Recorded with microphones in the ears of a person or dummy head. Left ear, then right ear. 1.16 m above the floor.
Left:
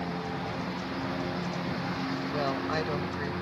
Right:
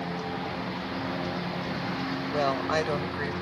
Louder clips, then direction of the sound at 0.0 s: Right 2 dB; 10° right (ahead or behind).